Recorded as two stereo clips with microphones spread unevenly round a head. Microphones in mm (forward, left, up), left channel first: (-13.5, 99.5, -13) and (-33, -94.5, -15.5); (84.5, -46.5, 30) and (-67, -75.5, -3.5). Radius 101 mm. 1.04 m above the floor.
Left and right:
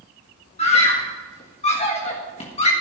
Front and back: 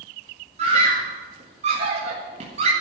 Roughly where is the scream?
Behind left.